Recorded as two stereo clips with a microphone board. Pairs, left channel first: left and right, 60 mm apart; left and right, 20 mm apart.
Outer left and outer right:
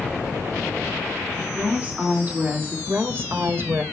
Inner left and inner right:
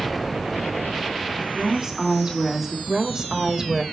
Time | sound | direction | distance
1.5 | a woman speaking | 25° right (ahead or behind) | 3.5 m
2.9 | a woman speaking | 40° right (ahead or behind) | 1.4 m